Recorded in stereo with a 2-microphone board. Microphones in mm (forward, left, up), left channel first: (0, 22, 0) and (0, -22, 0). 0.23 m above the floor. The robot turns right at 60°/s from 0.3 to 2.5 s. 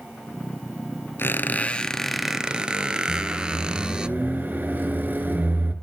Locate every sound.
1.2 s a squeak: 120° left, 0.9 m; by 4.1 s 160° right, 0.9 m
3.1 s a microwave: 45° right (ahead or behind), 2.5 m